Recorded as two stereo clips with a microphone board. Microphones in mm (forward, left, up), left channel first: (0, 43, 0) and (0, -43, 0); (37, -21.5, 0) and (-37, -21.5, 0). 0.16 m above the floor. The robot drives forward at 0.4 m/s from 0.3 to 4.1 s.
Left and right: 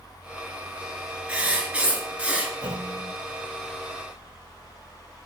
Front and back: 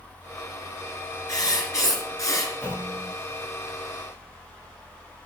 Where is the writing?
15° right, 3 m; by 2.5 s 20° right, 2.5 m.